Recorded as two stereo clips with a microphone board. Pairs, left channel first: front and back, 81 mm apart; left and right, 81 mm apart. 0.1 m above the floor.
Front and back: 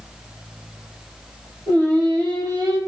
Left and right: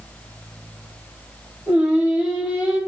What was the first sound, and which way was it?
Singing, 165° right.